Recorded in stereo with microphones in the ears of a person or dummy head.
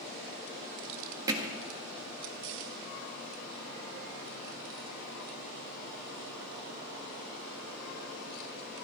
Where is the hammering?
25° right (ahead or behind), 1.8 m.